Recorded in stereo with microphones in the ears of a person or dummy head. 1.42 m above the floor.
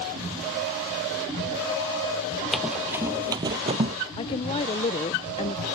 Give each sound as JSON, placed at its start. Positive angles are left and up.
{"t": 2.5, "sound": "running footsteps", "side_deg": -5}
{"t": 4.2, "sound": "a woman speaking", "side_deg": 30}